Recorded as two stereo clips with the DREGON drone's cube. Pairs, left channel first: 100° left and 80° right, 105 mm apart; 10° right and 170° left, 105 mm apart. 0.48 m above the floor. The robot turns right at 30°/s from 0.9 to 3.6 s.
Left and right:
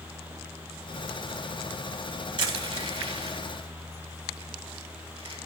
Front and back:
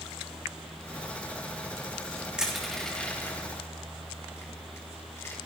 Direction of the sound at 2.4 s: 110° right.